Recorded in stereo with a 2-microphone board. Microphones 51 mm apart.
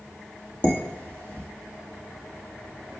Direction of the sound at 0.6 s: 25° left (ahead or behind).